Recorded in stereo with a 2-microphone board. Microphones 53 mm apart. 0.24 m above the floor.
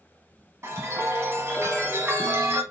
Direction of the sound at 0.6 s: 50° right (ahead or behind).